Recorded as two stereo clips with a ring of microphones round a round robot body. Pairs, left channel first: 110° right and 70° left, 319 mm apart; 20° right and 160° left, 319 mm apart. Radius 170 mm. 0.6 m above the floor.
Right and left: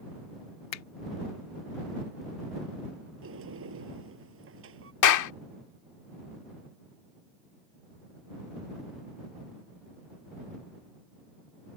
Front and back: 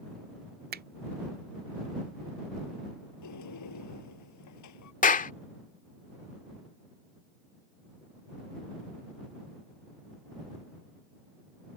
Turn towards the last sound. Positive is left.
turn(degrees=-85)